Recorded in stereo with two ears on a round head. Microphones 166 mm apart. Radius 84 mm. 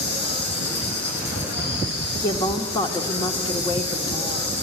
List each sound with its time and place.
0.0 s an insect: 55° left (ahead or behind), 6.5 m
2.2 s a woman speaking: 25° left (ahead or behind), 1.6 m